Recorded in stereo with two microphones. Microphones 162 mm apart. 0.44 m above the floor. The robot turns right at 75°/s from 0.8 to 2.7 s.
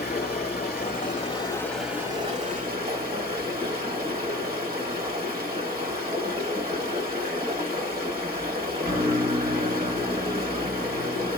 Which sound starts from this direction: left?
Running water, at 0.0 s.